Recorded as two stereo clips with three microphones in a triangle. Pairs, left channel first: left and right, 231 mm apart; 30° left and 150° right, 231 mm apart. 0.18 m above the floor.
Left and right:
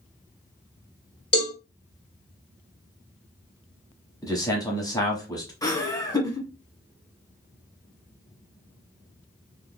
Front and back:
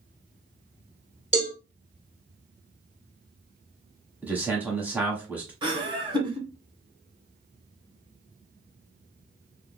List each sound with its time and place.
1.3 s a cowbell: 90° left, 1.4 m
4.2 s a man speaking: 140° left, 1.3 m
5.6 s laughter: 155° left, 1.4 m